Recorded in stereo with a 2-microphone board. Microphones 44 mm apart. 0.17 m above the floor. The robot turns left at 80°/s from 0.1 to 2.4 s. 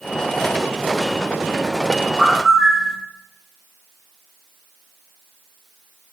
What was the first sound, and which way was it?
A bird, 25° right (ahead or behind).